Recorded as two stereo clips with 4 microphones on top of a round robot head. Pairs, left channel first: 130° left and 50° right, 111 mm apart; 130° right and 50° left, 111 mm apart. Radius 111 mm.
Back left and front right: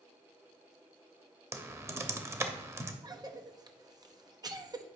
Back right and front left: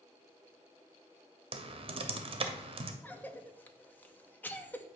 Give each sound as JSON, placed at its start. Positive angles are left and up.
{"t": 1.5, "sound": "typing on a keyboard", "azimuth_deg": 15, "distance_m": 0.8}
{"t": 3.0, "sound": "a cough", "azimuth_deg": -65, "distance_m": 1.1}